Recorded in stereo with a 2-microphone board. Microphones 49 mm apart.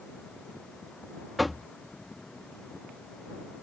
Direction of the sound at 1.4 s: Centre (ahead or behind).